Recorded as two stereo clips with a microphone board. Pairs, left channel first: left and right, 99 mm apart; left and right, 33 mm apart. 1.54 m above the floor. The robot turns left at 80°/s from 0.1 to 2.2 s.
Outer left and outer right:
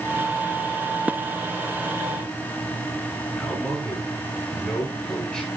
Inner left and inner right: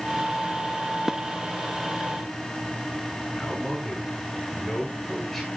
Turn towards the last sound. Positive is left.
turn(degrees=10)  # may be behind; listen again after turning